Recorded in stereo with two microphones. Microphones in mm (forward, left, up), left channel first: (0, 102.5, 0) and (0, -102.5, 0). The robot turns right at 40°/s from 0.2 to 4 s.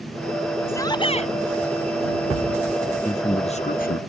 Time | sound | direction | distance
0.7 | a shout | 10° left (ahead or behind) | ?
3.0 | a man speaking | 10° left | ?